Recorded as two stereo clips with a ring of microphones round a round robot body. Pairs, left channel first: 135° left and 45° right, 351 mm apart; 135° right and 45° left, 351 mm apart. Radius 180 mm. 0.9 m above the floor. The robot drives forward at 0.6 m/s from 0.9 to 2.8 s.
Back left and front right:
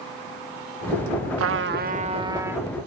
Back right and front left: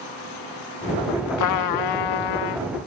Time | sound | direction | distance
1.4 | a trumpet | 95° right | ?